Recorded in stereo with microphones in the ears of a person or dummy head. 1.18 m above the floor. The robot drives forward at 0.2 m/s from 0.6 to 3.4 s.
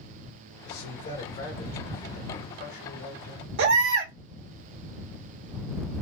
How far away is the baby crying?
About 0.8 m.